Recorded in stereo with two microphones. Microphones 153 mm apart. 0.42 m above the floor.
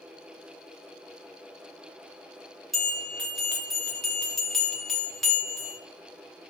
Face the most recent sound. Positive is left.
turn(degrees=0)  # may be behind; listen again after turning